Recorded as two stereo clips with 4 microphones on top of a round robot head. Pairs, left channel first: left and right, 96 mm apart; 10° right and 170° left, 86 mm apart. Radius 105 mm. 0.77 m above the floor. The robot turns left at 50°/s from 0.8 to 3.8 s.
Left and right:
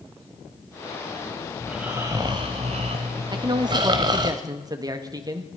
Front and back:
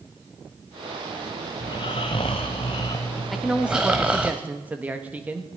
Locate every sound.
1.6 s snoring: straight ahead, 0.6 m; by 4.3 s 110° right, 0.6 m
3.3 s a man speaking: 100° right, 1.3 m; by 5.5 s 125° right, 1.3 m